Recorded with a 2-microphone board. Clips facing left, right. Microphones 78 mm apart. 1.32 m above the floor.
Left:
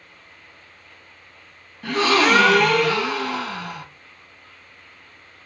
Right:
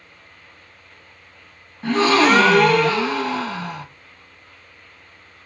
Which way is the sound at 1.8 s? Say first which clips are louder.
Right 3 dB; 25° right (ahead or behind).